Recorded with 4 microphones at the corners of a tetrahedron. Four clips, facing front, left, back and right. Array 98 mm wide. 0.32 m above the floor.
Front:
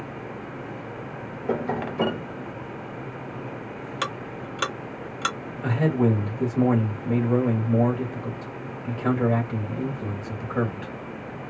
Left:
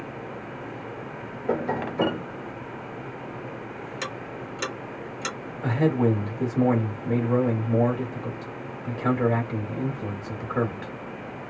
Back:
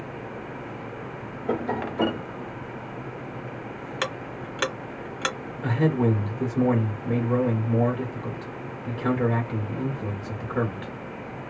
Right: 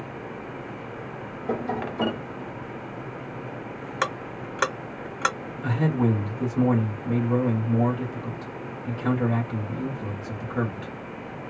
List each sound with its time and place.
1.5 s tapping: 105° left, 1.4 m
4.0 s ticking: 90° right, 0.8 m
5.6 s a man speaking: 100° left, 1.7 m